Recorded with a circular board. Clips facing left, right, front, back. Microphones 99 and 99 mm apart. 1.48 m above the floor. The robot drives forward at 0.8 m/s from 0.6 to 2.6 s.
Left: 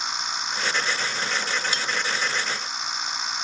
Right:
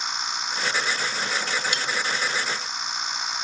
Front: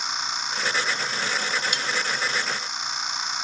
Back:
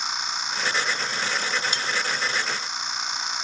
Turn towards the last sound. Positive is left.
turn(degrees=155)